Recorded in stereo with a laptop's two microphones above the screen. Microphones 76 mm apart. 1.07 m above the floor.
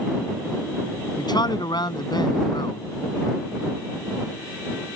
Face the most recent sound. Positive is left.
turn(degrees=70)  # may be behind; listen again after turning